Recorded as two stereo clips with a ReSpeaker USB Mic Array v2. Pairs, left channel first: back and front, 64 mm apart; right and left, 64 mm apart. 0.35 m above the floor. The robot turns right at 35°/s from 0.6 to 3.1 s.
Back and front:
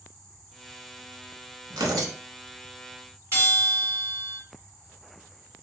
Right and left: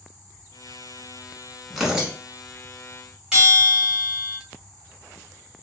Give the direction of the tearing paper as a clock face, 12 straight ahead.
12 o'clock.